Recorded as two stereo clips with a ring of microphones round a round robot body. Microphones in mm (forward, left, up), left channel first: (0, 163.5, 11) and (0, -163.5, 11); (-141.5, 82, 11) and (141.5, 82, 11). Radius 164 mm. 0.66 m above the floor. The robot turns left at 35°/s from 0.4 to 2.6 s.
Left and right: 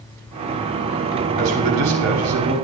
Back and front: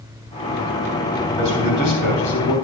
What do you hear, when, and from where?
1.4 s a man speaking: 105° right, 4 m; by 2.5 s 145° right, 4 m